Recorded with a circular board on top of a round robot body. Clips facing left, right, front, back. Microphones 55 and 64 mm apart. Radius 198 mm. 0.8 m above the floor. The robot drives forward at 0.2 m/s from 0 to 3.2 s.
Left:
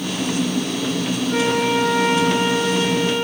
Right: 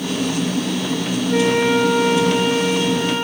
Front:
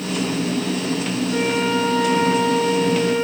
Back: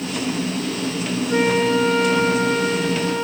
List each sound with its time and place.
1.3 s a flute: 155° right, 3 m